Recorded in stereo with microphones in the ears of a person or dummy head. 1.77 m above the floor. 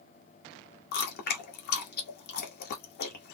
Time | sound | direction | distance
0.9 | chewing | 55° left (ahead or behind) | 0.9 m